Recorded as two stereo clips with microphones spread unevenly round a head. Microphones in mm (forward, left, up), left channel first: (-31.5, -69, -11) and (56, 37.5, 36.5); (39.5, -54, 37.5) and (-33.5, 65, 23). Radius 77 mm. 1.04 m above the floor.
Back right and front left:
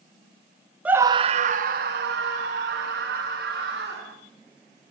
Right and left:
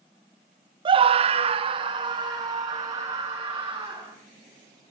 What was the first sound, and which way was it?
A scream, 150° left.